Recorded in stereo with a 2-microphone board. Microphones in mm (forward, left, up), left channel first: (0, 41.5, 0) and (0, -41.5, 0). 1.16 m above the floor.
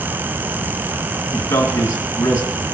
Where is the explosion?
I don't hear an explosion.